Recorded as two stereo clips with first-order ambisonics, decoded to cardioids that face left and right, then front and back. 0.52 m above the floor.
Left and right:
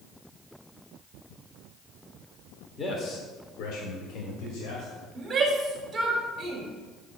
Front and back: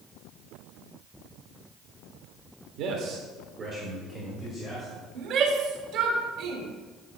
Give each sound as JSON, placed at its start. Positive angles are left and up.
{"t": 2.8, "sound": "a man speaking", "azimuth_deg": 160, "distance_m": 1.2}
{"t": 5.2, "sound": "a shout", "azimuth_deg": -160, "distance_m": 1.6}